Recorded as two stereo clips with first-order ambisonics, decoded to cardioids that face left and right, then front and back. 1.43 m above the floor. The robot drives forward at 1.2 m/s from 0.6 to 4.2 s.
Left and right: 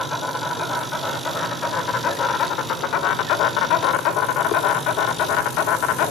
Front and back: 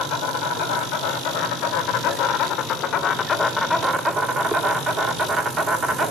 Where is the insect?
20° left, 4 m; by 6.1 s 115° left, 1.6 m.